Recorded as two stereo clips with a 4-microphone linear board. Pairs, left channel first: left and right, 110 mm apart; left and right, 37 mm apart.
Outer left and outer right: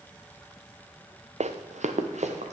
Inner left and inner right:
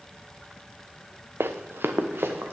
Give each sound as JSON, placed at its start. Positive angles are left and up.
{"t": 1.4, "sound": "running footsteps", "side_deg": -75, "distance_m": 1.0}